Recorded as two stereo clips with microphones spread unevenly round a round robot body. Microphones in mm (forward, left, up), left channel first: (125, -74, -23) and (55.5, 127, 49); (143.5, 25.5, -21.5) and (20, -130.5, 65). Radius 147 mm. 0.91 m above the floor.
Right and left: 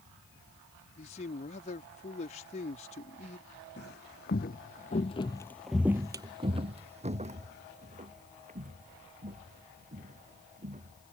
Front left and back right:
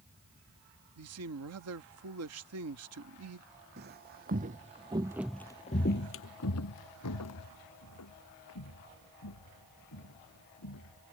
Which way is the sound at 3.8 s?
135° right.